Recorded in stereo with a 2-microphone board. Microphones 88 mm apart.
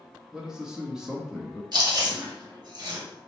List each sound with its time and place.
0.3 s a man speaking: 5° right (ahead or behind), 0.7 m
1.7 s chewing: 50° right (ahead or behind), 1.7 m